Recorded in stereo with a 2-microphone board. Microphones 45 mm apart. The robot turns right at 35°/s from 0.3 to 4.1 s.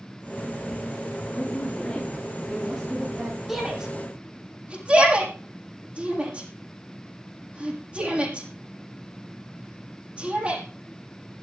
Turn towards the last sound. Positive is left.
turn(degrees=-30)  # may be behind; listen again after turning